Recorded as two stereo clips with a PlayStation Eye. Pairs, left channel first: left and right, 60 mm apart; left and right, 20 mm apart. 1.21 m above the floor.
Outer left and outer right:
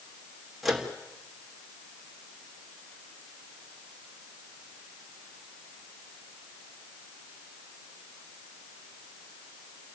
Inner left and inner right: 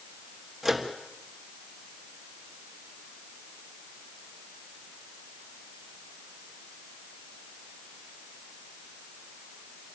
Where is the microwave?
Centre (ahead or behind), 3 m.